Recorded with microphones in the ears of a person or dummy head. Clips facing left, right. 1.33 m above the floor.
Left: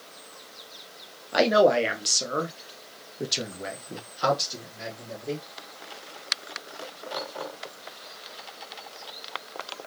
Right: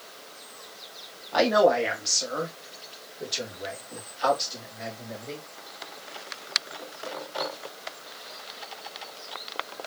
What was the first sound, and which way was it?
A man speaking, 25° left (ahead or behind).